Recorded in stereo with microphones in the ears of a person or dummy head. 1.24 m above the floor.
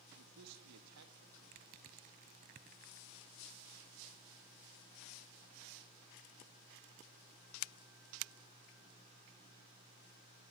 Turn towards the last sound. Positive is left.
turn(degrees=-30)  # may be behind; listen again after turning